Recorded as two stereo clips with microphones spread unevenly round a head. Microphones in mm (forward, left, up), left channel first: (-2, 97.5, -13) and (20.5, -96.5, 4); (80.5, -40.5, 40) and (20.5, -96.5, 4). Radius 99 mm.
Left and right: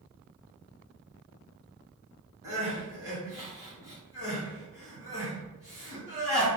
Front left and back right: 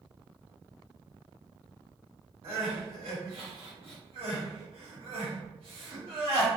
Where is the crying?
145° right, 1.8 m.